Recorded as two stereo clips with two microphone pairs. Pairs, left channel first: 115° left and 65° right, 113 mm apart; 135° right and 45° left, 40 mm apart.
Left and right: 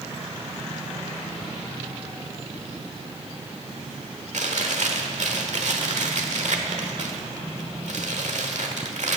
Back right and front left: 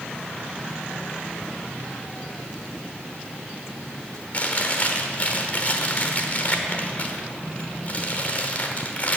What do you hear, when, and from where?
4.3 s chewing: 80° right, 1.1 m